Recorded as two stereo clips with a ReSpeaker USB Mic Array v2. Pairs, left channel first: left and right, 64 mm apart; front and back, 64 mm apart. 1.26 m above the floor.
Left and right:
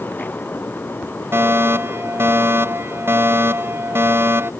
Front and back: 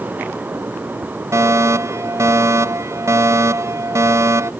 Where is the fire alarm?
140° right.